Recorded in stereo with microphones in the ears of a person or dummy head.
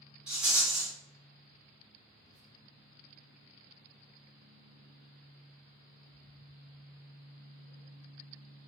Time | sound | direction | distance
0.3 | a rattle | 10° right (ahead or behind) | 1.2 m
2.1 | whispering | 60° right (ahead or behind) | 1.0 m